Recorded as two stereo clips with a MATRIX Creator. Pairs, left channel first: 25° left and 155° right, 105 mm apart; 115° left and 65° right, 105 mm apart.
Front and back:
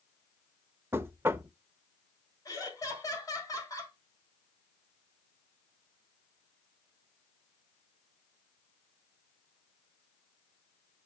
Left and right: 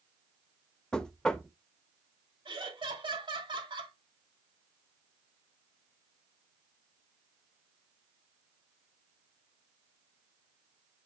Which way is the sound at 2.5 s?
30° right.